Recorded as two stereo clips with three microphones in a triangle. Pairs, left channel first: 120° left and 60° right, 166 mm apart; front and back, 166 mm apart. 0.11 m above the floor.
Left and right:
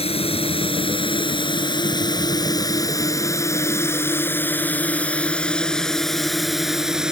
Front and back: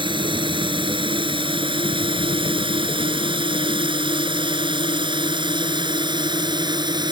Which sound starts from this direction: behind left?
A drone, at 0.0 s.